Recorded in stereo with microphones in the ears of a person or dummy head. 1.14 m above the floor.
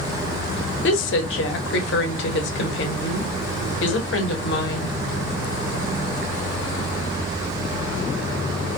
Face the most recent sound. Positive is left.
turn(degrees=60)  # may be behind; listen again after turning